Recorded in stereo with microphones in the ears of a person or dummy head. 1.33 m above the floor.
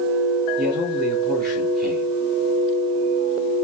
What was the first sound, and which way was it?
A man speaking, 40° right (ahead or behind).